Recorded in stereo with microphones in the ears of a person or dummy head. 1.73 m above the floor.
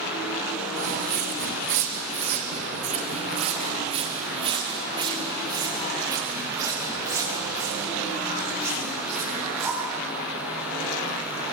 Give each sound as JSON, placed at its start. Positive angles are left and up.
{"t": 0.8, "sound": "footsteps", "side_deg": -60, "distance_m": 5.5}